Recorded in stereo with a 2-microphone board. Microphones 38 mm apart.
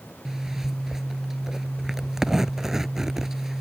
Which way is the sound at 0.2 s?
10° right (ahead or behind).